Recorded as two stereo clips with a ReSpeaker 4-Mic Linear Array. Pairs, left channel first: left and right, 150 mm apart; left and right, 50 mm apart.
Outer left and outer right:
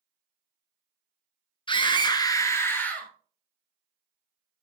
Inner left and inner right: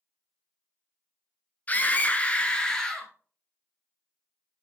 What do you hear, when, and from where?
1.7 s a scream: 35° left (ahead or behind), 1.4 m; by 3.1 s 10° left (ahead or behind), 2.0 m